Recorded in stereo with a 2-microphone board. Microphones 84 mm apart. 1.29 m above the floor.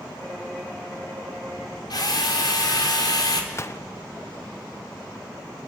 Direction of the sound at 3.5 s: 35° left (ahead or behind).